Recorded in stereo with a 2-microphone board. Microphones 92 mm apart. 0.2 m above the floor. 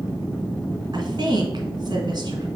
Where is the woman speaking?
50° right (ahead or behind), 1.9 m.